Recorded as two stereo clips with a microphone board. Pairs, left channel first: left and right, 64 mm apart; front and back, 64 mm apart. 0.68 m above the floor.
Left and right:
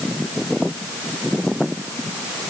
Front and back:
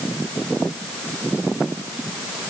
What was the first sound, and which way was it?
Only background noise.